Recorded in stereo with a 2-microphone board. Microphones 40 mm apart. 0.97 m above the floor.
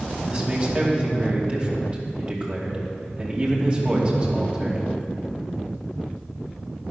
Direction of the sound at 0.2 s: 30° right (ahead or behind).